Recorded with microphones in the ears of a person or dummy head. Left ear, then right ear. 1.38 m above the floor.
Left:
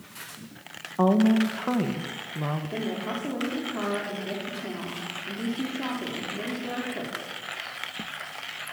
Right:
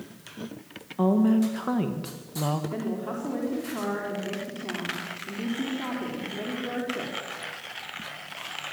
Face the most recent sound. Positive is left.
turn(degrees=5)  # may be behind; listen again after turning